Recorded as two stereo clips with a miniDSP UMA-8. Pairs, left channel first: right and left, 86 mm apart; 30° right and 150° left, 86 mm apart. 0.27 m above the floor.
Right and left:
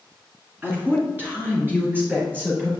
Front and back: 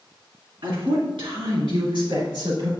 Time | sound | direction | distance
0.6 | a woman speaking | 155° left | 3 m